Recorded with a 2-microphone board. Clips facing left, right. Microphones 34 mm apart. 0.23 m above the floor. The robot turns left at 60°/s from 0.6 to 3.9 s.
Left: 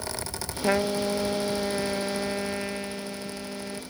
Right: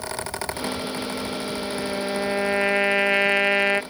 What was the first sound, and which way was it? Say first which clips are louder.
A trumpet: left 4 dB; 75° left.